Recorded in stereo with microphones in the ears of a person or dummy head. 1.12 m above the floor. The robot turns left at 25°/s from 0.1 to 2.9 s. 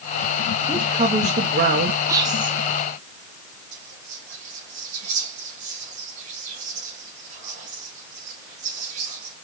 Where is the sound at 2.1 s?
20° right (ahead or behind), 0.7 m; by 2.5 s 30° right (ahead or behind), 0.7 m.